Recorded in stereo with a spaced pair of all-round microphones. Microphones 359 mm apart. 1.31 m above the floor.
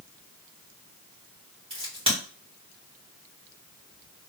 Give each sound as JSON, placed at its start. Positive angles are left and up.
{"t": 1.7, "sound": "a crack", "side_deg": -15, "distance_m": 2.5}